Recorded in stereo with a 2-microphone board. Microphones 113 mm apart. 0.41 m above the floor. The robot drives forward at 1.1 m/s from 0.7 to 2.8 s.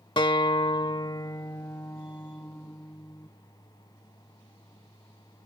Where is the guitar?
45° left (ahead or behind); by 3.3 s 15° left (ahead or behind).